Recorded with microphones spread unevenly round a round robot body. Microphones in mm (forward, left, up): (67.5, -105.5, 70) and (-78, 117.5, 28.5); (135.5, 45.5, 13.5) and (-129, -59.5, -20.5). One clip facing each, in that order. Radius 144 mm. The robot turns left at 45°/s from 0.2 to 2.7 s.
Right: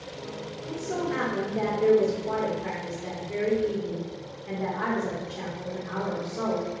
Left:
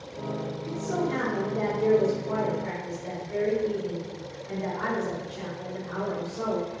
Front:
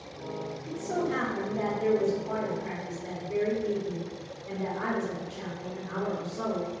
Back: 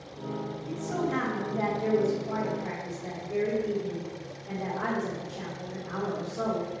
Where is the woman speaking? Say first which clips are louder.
Even, front 1 dB; 35° left, 1.2 m; by 6.7 s 55° right, 1.2 m.